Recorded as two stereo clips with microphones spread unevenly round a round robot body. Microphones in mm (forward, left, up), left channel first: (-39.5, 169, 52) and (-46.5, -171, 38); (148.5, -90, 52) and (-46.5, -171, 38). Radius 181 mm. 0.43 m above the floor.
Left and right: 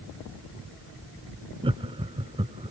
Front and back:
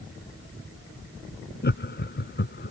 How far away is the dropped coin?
I don't hear a dropped coin.